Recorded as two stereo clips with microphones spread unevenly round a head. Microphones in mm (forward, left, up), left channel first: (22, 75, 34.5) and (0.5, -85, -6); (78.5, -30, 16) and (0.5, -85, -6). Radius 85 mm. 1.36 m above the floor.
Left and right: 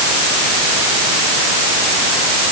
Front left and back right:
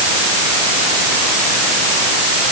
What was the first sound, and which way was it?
Only background noise.